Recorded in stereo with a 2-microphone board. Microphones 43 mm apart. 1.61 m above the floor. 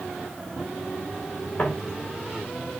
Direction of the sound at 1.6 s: 30° left (ahead or behind).